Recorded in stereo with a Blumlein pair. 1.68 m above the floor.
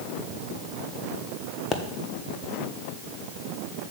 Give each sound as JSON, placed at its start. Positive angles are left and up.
{"t": 1.7, "sound": "a pop", "azimuth_deg": 20, "distance_m": 1.2}